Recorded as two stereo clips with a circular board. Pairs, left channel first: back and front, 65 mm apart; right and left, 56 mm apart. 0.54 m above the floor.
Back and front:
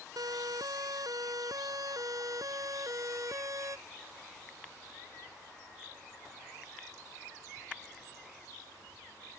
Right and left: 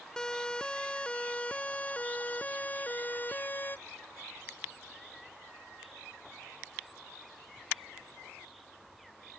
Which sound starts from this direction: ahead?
A siren, at 0.2 s.